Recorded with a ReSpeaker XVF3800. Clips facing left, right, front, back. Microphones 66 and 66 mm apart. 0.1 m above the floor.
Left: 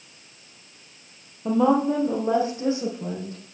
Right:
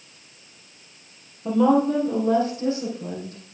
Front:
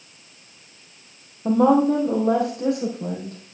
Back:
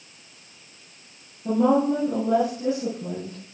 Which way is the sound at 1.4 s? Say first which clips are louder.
Right 1 dB, front 3 dB; 15° left.